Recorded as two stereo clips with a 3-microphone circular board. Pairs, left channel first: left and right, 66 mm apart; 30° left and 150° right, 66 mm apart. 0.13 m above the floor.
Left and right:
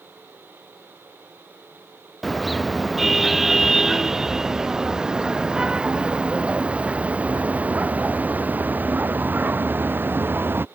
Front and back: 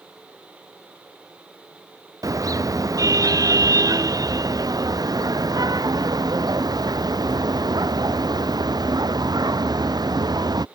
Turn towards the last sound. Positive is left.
turn(degrees=-150)